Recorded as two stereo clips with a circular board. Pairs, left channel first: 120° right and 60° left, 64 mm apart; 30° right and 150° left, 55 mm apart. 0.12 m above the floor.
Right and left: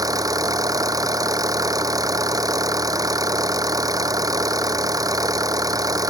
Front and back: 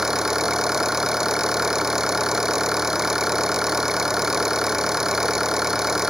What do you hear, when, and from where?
0.0 s an engine running: 65° left